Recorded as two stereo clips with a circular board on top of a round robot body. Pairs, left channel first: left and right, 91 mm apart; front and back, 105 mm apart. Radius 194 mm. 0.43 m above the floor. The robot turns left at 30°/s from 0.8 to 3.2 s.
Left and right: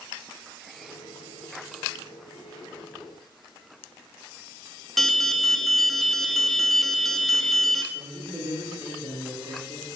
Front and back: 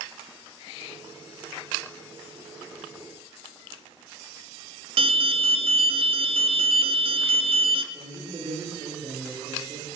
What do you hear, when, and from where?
5.0 s an alarm: straight behind, 0.5 m
7.9 s a man speaking: 125° right, 2 m